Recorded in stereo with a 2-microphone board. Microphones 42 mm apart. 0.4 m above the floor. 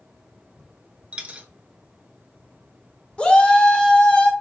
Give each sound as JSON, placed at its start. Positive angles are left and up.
{"t": 1.1, "sound": "a dropped coin", "side_deg": -30, "distance_m": 0.6}
{"t": 3.2, "sound": "a shout", "side_deg": 25, "distance_m": 0.8}